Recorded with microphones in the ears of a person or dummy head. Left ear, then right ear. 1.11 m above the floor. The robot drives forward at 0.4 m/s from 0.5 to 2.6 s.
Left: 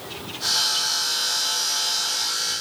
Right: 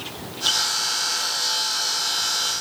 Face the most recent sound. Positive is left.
No sound to turn to.